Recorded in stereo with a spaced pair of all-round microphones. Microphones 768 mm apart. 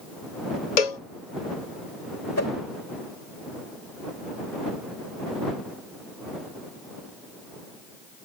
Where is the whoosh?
20° left (ahead or behind).